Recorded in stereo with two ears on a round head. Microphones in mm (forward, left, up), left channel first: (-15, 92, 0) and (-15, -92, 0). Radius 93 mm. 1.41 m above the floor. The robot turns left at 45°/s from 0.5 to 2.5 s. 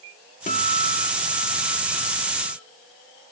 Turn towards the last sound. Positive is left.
turn(degrees=45)